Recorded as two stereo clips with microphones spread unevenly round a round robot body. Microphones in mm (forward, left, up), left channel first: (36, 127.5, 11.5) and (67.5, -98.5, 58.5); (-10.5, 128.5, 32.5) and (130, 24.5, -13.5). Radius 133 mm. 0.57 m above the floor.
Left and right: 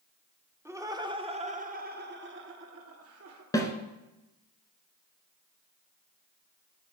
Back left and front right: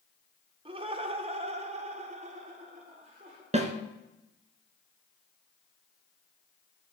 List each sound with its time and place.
0.7 s laughter: 5° left, 1.6 m; by 3.4 s 80° right, 1.7 m
3.5 s a snare drum: 20° left, 1.8 m